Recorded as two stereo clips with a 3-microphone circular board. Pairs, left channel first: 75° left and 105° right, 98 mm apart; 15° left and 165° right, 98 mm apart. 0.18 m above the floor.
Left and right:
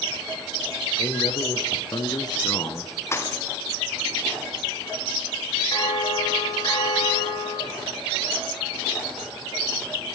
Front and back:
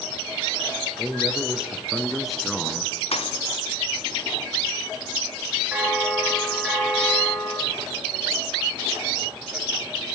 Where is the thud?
10° left, 3 m.